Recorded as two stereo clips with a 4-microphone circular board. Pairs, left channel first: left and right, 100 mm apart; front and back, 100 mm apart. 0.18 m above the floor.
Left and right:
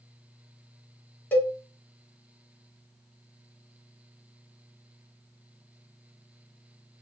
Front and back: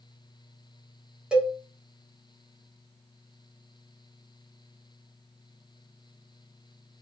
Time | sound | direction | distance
1.3 | a cowbell | 120° left | 0.6 m